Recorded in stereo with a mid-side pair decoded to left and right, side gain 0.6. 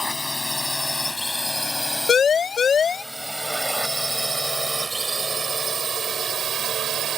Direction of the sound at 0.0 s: 10° left.